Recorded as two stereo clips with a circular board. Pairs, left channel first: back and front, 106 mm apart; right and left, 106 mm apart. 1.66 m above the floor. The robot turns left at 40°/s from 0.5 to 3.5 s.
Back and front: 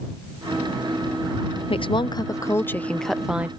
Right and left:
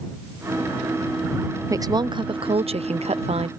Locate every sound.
1.7 s a woman speaking: 150° left; by 3.5 s 75° left